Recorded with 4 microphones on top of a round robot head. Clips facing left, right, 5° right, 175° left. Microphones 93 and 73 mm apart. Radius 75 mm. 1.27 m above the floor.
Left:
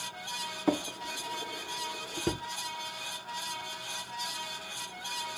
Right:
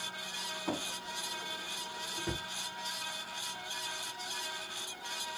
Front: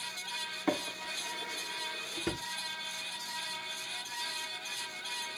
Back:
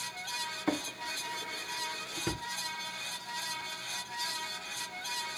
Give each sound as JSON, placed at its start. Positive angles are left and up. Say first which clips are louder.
{"t": 0.7, "sound": "a drawer", "louder": "left 9 dB, front 1 dB", "azimuth_deg": 75, "distance_m": 0.6}